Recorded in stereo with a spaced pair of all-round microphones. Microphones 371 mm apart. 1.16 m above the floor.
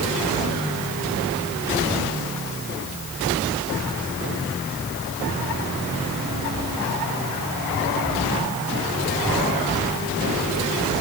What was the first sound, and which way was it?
Only background noise.